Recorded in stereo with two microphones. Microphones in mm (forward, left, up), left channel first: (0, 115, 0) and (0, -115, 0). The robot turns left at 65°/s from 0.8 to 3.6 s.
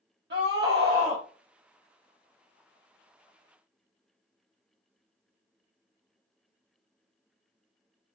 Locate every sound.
0.3 s a scream: 50° right (ahead or behind), 0.7 m; by 1.2 s 20° right (ahead or behind), 0.7 m